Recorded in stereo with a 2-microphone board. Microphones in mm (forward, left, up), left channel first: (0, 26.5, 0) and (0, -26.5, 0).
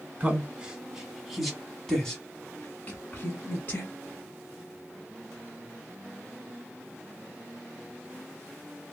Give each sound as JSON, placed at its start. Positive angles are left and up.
{"t": 0.2, "sound": "a man speaking", "side_deg": -25, "distance_m": 1.4}